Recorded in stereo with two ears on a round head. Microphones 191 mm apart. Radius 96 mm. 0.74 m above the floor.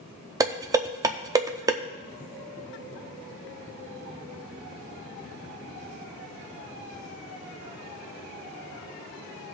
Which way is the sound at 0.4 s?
15° right (ahead or behind).